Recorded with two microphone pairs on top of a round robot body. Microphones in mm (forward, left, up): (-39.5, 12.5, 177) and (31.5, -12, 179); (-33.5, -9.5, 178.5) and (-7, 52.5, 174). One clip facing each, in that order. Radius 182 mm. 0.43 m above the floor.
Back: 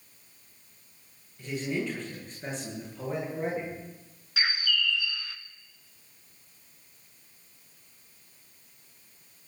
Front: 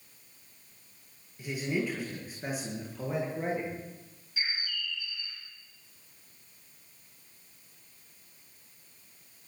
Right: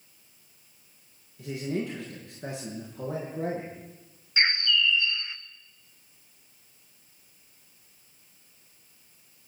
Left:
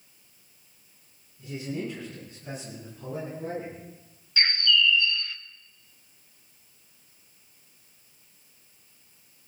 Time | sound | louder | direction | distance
1.4 | a man speaking | even, right 2 dB | 95° right | 9.5 m
4.4 | a bird | back 7 dB, left 1 dB | 175° left | 0.7 m